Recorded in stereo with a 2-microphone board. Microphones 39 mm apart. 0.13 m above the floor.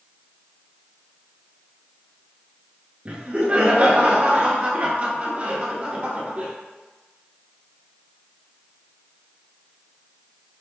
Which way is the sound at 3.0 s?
40° right (ahead or behind).